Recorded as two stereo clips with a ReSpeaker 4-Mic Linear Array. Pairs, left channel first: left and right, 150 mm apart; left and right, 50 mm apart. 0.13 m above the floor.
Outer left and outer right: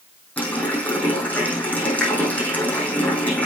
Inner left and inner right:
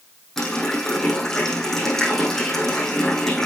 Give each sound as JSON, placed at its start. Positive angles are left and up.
{"t": 0.4, "sound": "a running tap", "side_deg": 10, "distance_m": 4.0}